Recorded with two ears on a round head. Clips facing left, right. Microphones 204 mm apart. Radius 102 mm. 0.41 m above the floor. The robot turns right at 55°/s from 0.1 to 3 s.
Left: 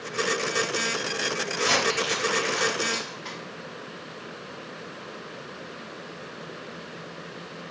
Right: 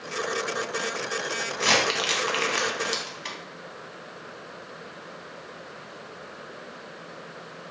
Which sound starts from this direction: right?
Crumpling, at 1.5 s.